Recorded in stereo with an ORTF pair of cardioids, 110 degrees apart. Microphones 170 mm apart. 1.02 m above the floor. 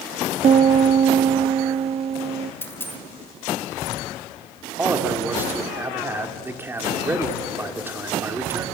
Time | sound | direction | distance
0.4 | a piano | 40° right | 0.8 m
2.6 | a dropped coin | 15° left | 1.6 m
4.8 | a man speaking | 15° right | 3 m